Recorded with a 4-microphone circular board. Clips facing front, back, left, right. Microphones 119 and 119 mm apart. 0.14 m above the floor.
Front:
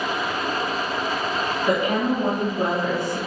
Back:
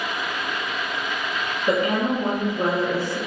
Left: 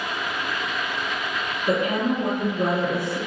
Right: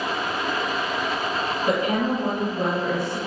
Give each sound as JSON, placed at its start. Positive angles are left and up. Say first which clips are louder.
{"t": 1.7, "sound": "a woman speaking", "louder": "back 1 dB, left 1 dB", "azimuth_deg": -70, "distance_m": 1.5}